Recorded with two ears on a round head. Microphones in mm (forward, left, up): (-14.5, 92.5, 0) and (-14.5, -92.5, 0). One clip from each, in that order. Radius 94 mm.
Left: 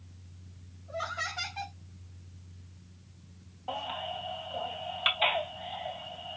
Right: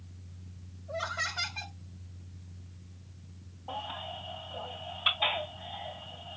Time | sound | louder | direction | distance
0.9 | laughter | right 1 dB | 5° right (ahead or behind) | 0.9 m
3.7 | a baby crying | left 3 dB | 80° left | 3 m